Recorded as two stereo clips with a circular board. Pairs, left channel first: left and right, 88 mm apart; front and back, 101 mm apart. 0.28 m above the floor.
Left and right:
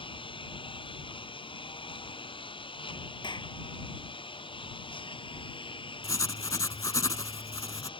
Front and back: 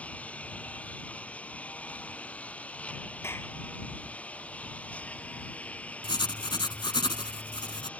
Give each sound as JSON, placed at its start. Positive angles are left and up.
{"t": 0.0, "sound": "a lawn mower", "azimuth_deg": 75}
{"t": 3.2, "sound": "a clap", "azimuth_deg": 65}
{"t": 6.0, "sound": "writing", "azimuth_deg": 40}